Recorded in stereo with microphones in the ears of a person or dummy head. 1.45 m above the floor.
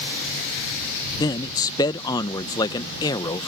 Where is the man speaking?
20° left (ahead or behind).